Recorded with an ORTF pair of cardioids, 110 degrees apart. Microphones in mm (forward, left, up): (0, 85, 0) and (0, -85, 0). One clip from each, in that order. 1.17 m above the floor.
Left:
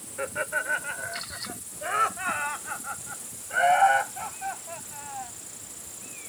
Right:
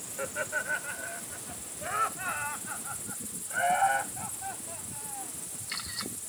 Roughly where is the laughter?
Ahead left.